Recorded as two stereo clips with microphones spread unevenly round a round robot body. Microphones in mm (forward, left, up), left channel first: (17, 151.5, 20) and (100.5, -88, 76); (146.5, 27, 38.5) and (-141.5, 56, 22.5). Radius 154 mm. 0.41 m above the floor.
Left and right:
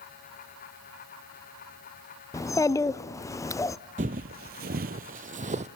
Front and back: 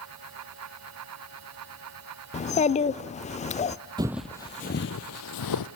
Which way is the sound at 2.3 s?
55° left.